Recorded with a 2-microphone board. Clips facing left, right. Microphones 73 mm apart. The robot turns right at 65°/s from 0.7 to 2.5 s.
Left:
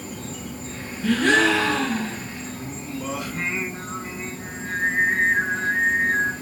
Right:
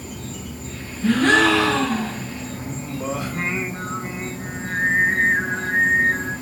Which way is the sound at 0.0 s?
145° left.